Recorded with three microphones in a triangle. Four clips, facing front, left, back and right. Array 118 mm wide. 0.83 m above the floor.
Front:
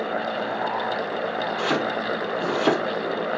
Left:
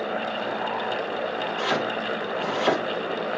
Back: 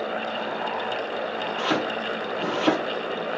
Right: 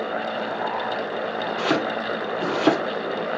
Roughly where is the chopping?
Right.